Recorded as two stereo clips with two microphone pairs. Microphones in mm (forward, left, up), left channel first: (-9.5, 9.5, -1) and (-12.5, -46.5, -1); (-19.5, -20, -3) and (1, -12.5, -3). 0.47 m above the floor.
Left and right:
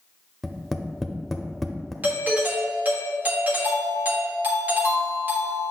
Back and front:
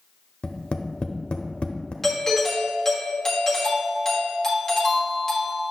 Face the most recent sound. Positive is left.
turn(degrees=-115)